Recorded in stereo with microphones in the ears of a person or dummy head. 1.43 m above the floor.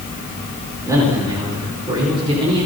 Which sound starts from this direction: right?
A man speaking, at 0.8 s.